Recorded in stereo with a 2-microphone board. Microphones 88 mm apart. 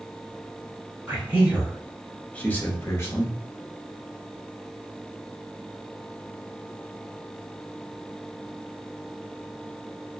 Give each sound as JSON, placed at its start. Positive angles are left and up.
{"t": 1.1, "sound": "a man speaking", "side_deg": -25, "distance_m": 0.9}